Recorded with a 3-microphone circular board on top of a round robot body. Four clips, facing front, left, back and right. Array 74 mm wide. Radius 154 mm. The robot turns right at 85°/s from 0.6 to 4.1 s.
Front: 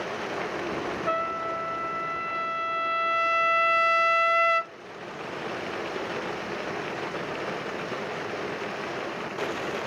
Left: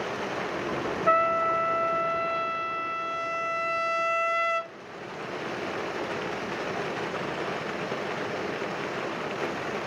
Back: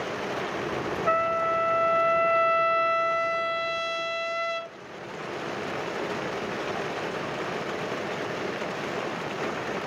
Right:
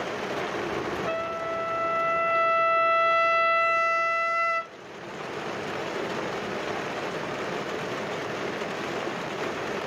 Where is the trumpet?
120° left, 0.7 m; by 4.7 s 15° left, 0.7 m.